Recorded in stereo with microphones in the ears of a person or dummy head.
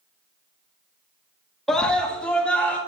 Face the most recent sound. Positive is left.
turn(degrees=5)  # may be behind; listen again after turning